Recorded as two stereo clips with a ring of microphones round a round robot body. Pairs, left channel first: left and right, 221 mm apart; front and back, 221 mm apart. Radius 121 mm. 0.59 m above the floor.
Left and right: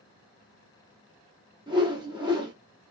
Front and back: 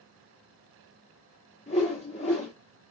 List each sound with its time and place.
1.7 s a whoosh: 40° right, 1.4 m